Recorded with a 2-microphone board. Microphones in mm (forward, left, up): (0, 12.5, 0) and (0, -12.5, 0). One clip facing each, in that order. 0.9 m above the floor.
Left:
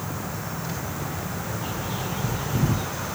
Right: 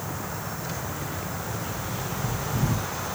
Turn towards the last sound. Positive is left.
turn(degrees=35)  # may be behind; listen again after turning